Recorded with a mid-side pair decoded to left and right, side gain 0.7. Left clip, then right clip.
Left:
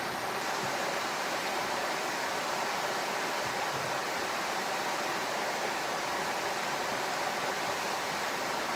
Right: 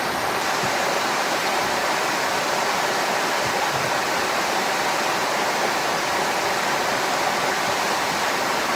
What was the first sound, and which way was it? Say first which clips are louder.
Running water: right 10 dB; 45° right.